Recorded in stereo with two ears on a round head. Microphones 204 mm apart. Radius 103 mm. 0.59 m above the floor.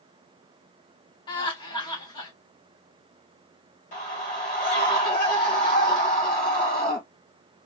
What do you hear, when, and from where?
1.3 s laughter: 20° left (ahead or behind), 3 m
3.9 s a scream: 35° left (ahead or behind), 2.5 m